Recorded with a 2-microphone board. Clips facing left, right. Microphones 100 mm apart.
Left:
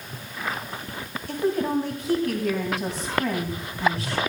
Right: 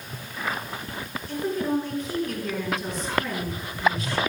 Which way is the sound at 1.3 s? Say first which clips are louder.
Left 2 dB; 75° left (ahead or behind).